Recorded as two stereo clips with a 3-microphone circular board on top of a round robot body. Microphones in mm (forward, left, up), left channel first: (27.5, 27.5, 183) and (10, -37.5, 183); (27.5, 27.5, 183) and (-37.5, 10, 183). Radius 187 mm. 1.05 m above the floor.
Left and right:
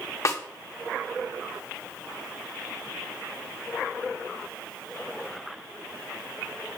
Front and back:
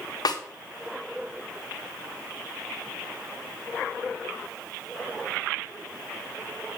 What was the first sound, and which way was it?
A snare drum, 30° left.